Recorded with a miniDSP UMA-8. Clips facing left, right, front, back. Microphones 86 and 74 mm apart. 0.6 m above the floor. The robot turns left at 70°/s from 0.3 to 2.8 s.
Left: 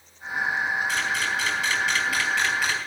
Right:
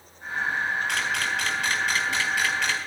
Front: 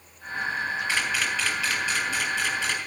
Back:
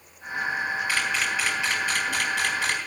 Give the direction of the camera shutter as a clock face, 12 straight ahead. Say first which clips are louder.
Left 1 dB, even; 2 o'clock.